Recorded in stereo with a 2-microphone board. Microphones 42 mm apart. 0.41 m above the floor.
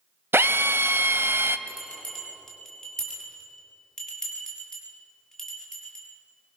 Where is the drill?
75° right (ahead or behind), 1.0 m.